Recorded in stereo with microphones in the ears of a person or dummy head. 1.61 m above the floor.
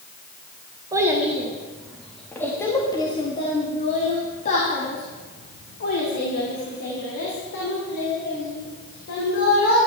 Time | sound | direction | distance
0.9 | a child speaking | 10° right (ahead or behind) | 1.9 m